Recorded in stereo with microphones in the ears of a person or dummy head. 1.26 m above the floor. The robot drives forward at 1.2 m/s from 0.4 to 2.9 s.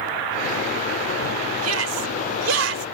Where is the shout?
85° right; by 2.9 s 75° right (ahead or behind).